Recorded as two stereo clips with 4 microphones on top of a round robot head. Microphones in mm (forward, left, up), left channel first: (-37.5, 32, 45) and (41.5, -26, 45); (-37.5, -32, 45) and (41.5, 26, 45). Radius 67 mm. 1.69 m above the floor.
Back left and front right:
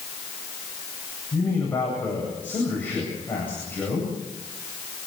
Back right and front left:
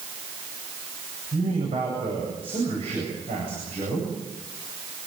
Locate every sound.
1.3 s a man speaking: 70° left, 8.5 m